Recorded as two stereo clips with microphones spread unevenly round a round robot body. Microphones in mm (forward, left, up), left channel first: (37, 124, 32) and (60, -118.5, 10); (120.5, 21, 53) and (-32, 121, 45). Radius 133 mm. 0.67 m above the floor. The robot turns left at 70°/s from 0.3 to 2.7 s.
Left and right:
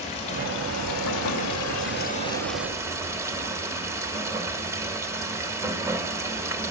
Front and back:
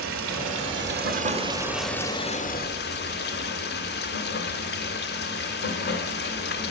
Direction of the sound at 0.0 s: 165° left.